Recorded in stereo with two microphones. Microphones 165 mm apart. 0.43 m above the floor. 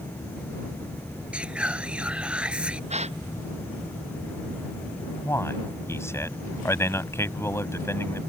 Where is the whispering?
5° right (ahead or behind).